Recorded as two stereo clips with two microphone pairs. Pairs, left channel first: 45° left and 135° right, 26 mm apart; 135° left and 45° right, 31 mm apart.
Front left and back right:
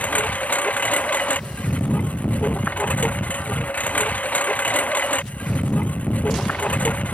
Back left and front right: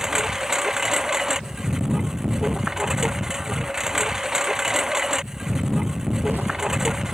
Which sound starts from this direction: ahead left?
A lawn mower, at 0.0 s.